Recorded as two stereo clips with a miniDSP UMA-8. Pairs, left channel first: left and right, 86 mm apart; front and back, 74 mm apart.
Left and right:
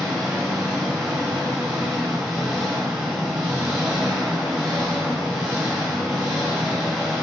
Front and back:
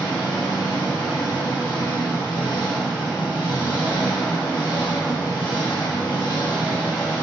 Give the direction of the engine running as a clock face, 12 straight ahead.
12 o'clock.